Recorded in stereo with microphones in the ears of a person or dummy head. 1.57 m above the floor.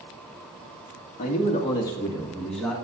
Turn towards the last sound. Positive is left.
turn(degrees=0)  # may be behind; listen again after turning